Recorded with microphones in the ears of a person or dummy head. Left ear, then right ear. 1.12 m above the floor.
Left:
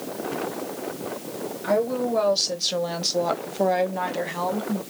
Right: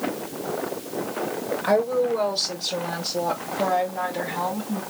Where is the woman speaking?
20° right (ahead or behind), 0.8 m; by 4.8 s 80° left, 1.5 m.